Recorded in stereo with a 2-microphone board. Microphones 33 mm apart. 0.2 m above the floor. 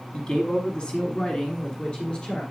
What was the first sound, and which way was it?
A man speaking, 30° left (ahead or behind).